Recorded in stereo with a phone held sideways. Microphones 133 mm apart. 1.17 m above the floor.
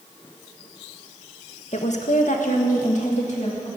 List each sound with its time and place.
1.7 s a woman speaking: 55° left (ahead or behind), 1.4 m